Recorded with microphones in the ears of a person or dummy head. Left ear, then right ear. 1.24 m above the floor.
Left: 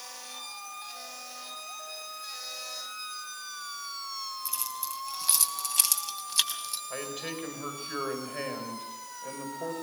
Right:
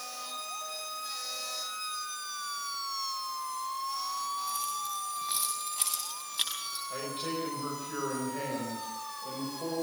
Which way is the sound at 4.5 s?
85° left.